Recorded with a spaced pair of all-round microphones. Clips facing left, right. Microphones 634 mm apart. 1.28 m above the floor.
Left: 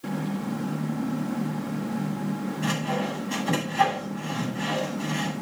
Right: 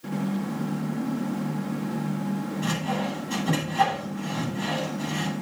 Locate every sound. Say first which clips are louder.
2.6 s sawing: even; 60° right (ahead or behind), 6 m